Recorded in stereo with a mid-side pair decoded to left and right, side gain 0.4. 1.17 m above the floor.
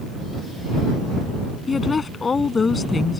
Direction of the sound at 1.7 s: 40° left.